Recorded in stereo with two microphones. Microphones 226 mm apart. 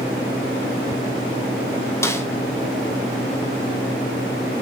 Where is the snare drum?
10° left (ahead or behind), 1.0 m.